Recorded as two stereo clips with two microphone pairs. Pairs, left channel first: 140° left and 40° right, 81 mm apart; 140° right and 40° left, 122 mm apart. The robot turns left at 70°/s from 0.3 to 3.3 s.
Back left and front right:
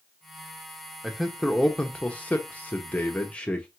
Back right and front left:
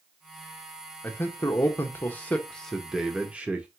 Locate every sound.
1.0 s a man speaking: 110° right, 0.6 m; by 3.7 s 95° left, 0.6 m